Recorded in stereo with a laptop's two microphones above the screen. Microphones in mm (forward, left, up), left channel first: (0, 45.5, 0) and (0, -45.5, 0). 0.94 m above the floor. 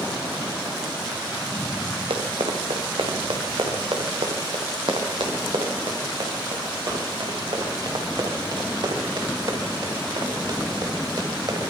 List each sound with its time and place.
2.1 s running footsteps: 75° right (ahead or behind), 5 m; by 11.6 s 50° right (ahead or behind), 8.5 m